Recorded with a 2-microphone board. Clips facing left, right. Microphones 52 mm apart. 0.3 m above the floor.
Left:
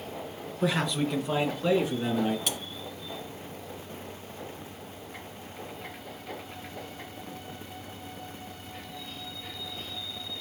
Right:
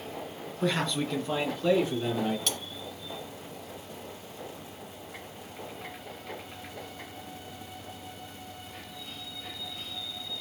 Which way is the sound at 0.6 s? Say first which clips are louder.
Left 1 dB; 5° left (ahead or behind).